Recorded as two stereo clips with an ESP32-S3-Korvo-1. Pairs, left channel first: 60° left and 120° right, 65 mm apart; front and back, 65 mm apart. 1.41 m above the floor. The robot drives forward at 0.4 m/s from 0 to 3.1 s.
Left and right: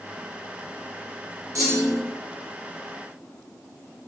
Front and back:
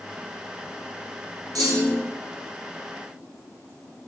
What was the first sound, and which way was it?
A clunk, 160° right.